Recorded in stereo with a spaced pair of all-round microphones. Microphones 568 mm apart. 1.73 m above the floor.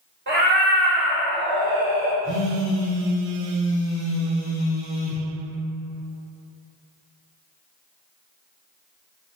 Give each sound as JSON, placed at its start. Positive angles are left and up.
{"t": 0.3, "sound": "a cat meowing", "side_deg": -20, "distance_m": 0.9}
{"t": 2.2, "sound": "a phone buzzing", "side_deg": 20, "distance_m": 1.0}